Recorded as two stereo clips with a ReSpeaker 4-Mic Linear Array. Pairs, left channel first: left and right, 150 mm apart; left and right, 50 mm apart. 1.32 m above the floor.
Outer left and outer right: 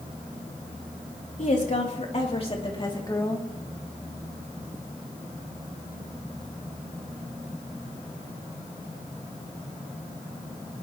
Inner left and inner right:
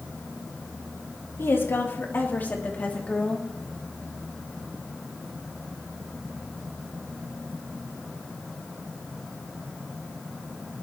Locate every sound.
1.4 s a woman speaking: 60° left (ahead or behind), 3.5 m; by 3.5 s 20° left (ahead or behind), 3 m